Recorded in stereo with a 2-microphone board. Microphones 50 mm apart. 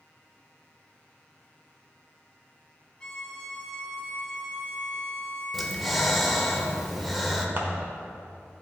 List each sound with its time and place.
3.0 s a violin: 20° left (ahead or behind), 0.8 m
5.5 s breathing: centre (ahead or behind), 0.7 m
7.6 s scissors: 40° right (ahead or behind), 0.9 m